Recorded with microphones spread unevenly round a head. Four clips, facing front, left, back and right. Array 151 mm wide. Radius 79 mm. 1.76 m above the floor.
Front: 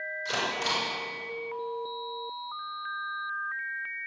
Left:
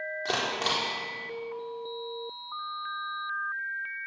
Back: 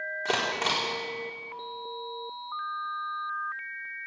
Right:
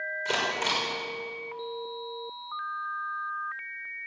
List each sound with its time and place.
0.2 s a camera shutter: 150° left, 4.5 m